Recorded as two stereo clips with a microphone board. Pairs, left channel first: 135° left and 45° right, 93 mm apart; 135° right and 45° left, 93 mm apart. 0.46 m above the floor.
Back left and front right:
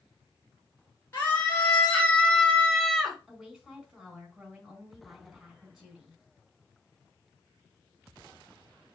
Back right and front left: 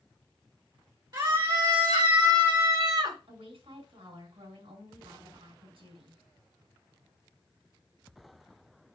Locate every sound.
1.1 s a scream: 70° left, 2.5 m; by 3.2 s 40° left, 1.7 m
3.3 s a woman speaking: 40° left, 4.5 m